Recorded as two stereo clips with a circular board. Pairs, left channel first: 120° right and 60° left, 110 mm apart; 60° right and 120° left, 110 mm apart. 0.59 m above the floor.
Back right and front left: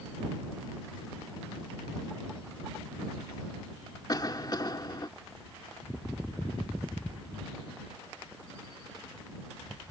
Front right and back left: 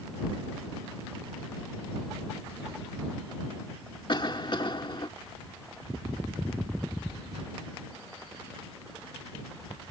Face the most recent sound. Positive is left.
turn(degrees=-80)